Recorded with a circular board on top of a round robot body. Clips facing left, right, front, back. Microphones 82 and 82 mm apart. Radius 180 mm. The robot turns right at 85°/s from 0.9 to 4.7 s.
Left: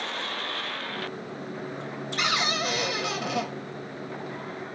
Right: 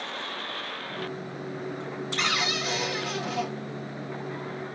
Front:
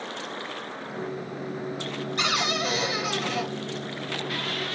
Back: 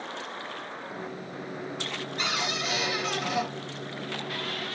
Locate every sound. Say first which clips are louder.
2.2 s a cupboard door: left 2 dB, front 5 dB; 5° left, 0.9 m; by 3.5 s 115° left, 0.9 m